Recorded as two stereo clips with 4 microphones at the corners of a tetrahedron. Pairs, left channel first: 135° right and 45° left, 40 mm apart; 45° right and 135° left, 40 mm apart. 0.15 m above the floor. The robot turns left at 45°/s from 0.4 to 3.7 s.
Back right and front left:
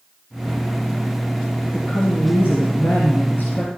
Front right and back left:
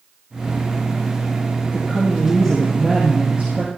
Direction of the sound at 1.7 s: 95° right.